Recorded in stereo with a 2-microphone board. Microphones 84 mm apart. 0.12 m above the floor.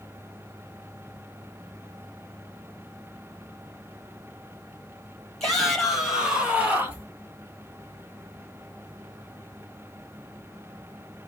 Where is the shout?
5° left (ahead or behind), 3 m; by 7.1 s 30° right (ahead or behind), 1.9 m.